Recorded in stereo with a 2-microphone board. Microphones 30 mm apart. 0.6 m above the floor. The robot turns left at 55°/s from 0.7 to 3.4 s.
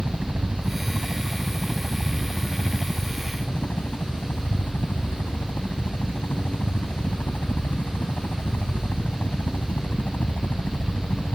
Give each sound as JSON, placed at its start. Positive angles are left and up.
{"t": 0.0, "sound": "a helicopter", "azimuth_deg": -125}